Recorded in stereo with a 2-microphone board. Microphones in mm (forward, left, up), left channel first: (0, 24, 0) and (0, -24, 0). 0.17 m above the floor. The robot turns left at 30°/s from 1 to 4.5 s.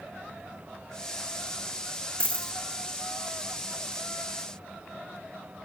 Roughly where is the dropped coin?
Right.